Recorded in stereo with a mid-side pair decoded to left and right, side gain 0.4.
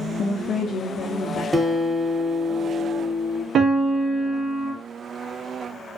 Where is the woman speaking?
55° left, 0.6 m.